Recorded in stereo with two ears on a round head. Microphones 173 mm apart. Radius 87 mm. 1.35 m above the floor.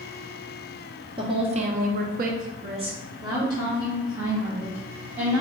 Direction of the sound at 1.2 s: 25° right (ahead or behind).